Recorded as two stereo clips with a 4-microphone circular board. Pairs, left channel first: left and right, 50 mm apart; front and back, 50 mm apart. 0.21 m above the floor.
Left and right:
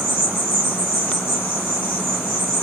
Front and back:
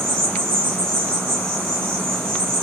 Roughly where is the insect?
Right.